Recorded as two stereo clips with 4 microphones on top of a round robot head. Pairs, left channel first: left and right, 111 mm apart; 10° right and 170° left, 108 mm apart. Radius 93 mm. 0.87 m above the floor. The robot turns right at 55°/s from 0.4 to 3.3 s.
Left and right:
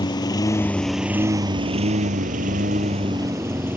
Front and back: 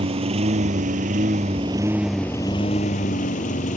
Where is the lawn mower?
140° left; by 3.8 s 15° right.